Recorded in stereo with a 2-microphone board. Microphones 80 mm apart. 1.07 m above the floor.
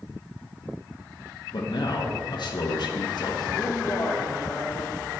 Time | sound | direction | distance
1.5 | a man speaking | 65° left (ahead or behind) | 0.9 m
3.5 | a man speaking | 35° left (ahead or behind) | 1.6 m